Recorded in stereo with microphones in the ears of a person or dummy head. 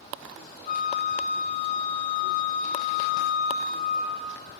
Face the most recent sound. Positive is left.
turn(degrees=45)  # may be behind; listen again after turning